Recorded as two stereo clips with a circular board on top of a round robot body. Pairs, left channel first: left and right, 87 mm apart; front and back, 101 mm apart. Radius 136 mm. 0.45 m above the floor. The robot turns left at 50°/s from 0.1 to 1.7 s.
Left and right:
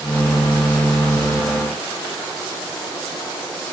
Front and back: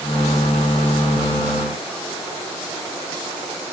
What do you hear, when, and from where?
Only background noise.